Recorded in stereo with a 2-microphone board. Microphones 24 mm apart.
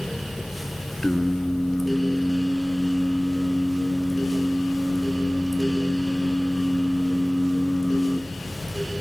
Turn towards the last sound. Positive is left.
turn(degrees=40)  # may be behind; listen again after turning